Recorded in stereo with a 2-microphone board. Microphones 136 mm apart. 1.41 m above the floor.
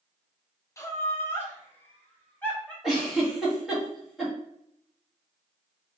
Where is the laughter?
20° left (ahead or behind), 0.9 m; by 2.7 s 10° left (ahead or behind), 1.8 m.